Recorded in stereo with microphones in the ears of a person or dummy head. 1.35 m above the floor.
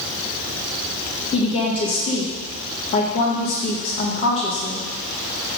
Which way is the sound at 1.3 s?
35° left (ahead or behind).